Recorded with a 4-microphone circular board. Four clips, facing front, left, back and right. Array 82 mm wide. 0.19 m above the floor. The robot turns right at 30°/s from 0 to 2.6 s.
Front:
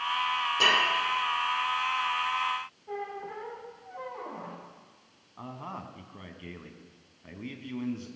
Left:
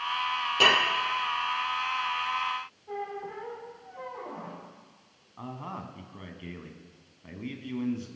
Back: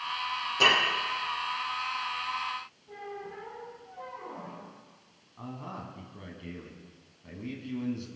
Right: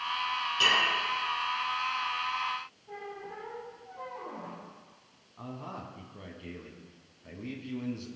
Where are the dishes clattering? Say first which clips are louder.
Left 4 dB, back 1 dB; 90° left, 3.5 m; by 0.8 s 95° left, 3.5 m.